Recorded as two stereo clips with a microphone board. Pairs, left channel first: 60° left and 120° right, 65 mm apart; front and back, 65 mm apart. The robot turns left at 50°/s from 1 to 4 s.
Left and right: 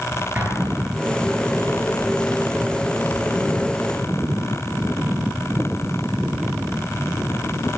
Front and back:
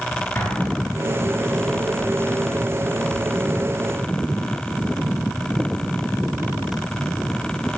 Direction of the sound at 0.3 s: 55° right.